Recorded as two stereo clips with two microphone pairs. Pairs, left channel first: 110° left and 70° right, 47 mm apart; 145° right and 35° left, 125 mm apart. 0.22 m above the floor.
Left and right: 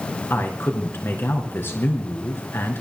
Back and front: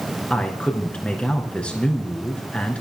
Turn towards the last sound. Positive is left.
turn(degrees=135)